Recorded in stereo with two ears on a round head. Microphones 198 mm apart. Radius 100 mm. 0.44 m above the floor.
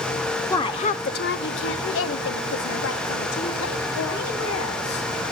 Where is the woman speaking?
15° left (ahead or behind), 0.7 m; by 5.1 s 80° left, 3.5 m.